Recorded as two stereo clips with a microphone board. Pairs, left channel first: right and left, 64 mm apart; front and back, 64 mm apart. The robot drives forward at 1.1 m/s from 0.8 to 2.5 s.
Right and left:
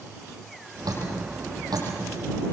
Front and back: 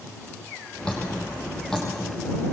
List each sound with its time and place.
0.8 s dripping: 75° left, 7.5 m; by 1.9 s 85° left, 7 m